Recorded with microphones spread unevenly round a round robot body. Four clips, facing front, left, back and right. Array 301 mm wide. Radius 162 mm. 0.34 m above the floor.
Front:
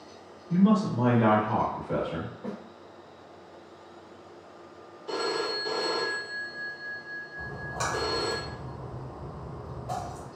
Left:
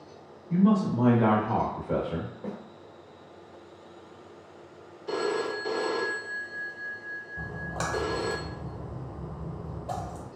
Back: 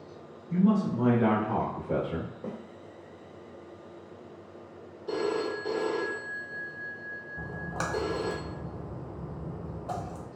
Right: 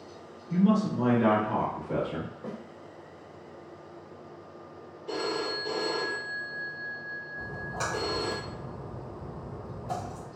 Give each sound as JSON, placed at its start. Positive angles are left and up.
{"t": 0.5, "sound": "a man speaking", "azimuth_deg": 15, "distance_m": 0.9}
{"t": 2.4, "sound": "a snare drum", "azimuth_deg": 165, "distance_m": 1.0}
{"t": 5.1, "sound": "a phone ringing", "azimuth_deg": 150, "distance_m": 0.7}
{"t": 7.4, "sound": "a splash", "azimuth_deg": 125, "distance_m": 0.5}